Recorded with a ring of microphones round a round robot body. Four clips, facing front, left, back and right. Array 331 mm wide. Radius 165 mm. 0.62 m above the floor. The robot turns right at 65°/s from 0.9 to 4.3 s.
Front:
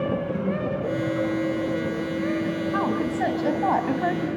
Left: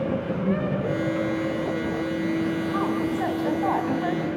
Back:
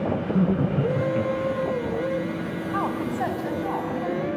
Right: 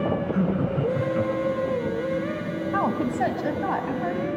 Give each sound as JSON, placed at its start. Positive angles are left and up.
{"t": 0.3, "sound": "laughter", "azimuth_deg": -160, "distance_m": 8.0}
{"t": 2.7, "sound": "a woman speaking", "azimuth_deg": -85, "distance_m": 4.0}